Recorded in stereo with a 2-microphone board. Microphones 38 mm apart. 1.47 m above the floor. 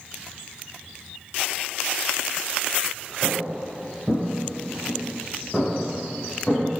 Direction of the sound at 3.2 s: 30° right (ahead or behind).